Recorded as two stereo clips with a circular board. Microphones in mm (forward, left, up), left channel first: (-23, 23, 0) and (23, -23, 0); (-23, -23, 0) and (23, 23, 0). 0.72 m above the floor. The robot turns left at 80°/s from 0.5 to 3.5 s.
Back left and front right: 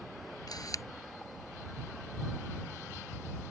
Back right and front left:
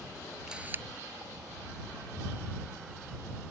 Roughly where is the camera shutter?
Behind left.